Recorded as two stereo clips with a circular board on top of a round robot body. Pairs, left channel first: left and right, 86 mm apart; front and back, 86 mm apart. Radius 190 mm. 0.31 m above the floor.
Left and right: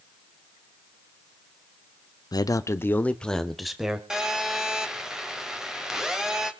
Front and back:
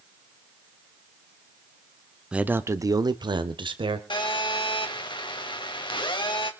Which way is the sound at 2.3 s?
105° left.